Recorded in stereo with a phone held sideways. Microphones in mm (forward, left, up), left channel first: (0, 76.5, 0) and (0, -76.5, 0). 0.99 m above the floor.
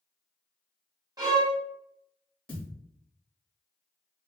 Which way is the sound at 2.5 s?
5° left (ahead or behind).